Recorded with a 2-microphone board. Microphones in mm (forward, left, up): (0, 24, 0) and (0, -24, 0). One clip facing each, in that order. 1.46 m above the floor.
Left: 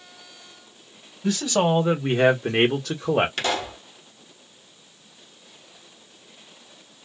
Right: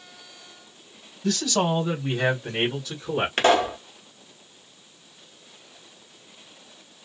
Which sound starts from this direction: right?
A pop, at 3.4 s.